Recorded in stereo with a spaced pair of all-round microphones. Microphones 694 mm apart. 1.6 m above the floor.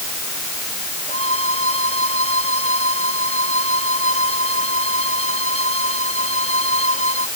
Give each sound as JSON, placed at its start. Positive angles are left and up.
{"t": 1.1, "sound": "a violin", "side_deg": -50}